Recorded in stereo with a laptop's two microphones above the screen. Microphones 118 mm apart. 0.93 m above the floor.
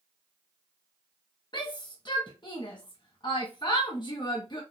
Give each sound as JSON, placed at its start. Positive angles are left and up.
{"t": 1.5, "sound": "a shout", "side_deg": 45, "distance_m": 0.8}